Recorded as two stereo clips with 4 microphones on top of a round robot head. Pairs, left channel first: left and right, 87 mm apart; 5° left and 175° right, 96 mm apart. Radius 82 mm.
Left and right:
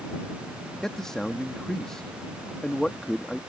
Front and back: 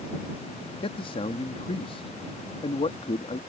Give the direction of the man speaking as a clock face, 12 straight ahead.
12 o'clock.